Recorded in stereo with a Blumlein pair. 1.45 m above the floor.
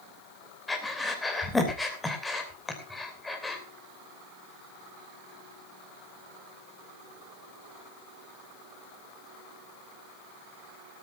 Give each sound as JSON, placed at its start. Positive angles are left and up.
{"t": 0.7, "sound": "breathing", "azimuth_deg": 10, "distance_m": 3.0}